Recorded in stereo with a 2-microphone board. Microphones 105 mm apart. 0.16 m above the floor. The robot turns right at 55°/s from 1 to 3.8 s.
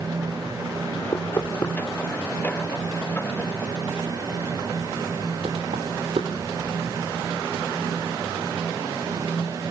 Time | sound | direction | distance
1.1 | knocking | 35° left (ahead or behind) | 3 m